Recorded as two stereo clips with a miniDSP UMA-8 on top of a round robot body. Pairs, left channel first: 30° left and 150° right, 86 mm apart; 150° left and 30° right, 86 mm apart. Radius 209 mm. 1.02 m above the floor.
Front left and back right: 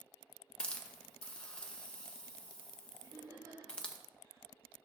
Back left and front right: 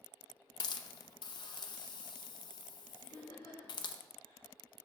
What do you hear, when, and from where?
0.6 s a hiss: 110° left, 0.6 m
3.0 s laughter: 170° left, 2 m